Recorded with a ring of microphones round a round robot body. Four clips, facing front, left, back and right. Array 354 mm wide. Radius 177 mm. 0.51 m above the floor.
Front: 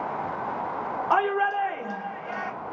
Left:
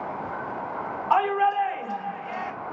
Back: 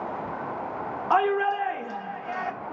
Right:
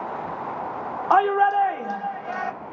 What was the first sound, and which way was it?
A shout, 90° right.